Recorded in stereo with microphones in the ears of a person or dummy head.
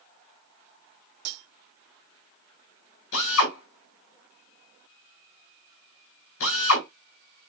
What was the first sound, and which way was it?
Cutlery clinking, 75° right (ahead or behind).